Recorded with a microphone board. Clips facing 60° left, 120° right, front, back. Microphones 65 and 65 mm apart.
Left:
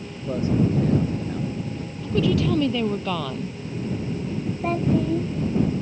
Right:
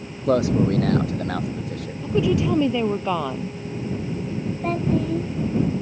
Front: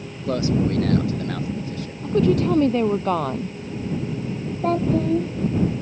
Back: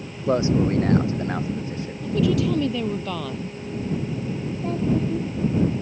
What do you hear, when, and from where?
0.3 s a man speaking: 115° right
2.0 s a woman speaking: 50° right
4.6 s a child speaking: 25° right